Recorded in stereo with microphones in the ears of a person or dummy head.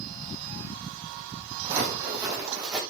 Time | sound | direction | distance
1.6 | footsteps | 25° right (ahead or behind) | 6 m